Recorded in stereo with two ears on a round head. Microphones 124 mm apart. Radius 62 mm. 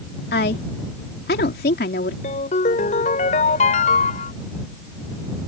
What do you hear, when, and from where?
0.3 s a woman speaking: 75° left (ahead or behind)
2.2 s a ringtone: 55° left (ahead or behind)